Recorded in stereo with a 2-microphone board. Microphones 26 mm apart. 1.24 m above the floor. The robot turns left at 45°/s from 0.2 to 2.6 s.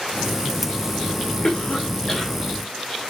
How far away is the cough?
About 1.0 m.